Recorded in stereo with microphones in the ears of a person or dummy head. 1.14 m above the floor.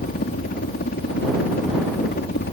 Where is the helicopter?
45° left (ahead or behind); by 2.5 s 50° left (ahead or behind).